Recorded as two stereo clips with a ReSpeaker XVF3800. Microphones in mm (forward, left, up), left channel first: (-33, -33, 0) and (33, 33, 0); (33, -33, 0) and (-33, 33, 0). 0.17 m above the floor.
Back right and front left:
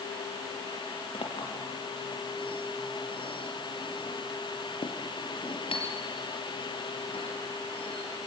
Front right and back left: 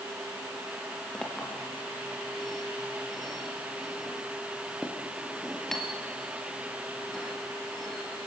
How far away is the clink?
About 2.5 m.